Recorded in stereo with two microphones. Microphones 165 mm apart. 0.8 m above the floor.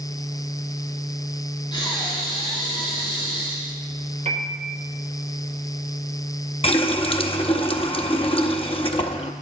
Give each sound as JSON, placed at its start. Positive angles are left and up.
{"t": 1.7, "sound": "breathing", "side_deg": 30, "distance_m": 2.0}
{"t": 4.2, "sound": "a piano", "side_deg": -40, "distance_m": 2.0}
{"t": 6.6, "sound": "a running tap", "side_deg": 35, "distance_m": 0.6}